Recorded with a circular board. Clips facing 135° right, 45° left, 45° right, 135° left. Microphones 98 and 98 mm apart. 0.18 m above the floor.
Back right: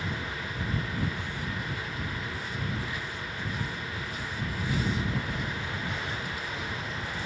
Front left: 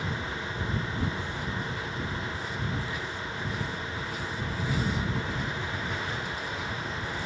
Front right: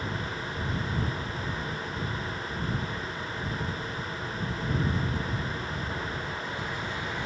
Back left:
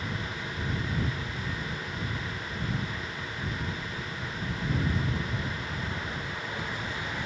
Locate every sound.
Only background noise.